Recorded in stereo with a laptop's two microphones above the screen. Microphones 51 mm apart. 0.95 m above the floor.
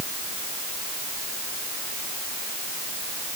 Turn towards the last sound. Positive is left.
No sound to turn to.